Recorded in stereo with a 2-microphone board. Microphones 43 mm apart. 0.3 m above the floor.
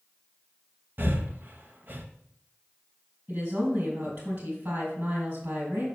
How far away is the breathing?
About 0.7 m.